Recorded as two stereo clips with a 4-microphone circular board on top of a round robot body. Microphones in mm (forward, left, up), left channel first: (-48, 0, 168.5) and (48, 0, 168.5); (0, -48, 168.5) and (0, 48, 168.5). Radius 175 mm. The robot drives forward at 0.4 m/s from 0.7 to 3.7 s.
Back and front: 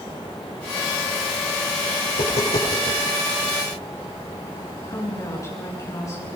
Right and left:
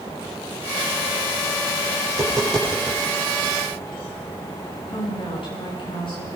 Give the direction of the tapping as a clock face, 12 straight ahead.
6 o'clock.